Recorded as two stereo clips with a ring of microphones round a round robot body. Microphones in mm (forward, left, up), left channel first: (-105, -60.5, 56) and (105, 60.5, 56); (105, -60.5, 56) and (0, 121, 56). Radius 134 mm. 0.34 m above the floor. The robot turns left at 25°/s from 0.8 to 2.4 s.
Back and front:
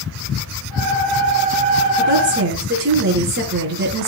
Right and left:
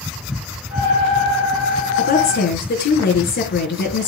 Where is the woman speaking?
10° right, 5 m; by 4.1 s 20° right, 5 m.